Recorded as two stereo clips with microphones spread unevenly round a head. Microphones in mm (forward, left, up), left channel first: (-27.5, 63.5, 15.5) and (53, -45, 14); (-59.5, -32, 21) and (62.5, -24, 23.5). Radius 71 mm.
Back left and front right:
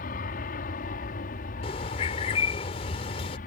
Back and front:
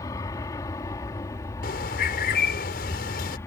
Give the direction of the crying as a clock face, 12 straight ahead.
No crying in this recording.